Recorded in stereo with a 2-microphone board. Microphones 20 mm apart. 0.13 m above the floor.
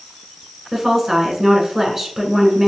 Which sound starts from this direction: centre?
A woman speaking, at 0.7 s.